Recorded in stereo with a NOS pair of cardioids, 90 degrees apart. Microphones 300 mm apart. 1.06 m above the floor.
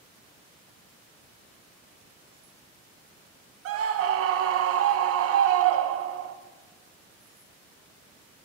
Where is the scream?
55° right, 0.5 m.